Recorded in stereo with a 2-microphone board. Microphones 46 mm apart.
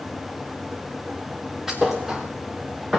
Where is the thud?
10° right (ahead or behind), 1.9 m.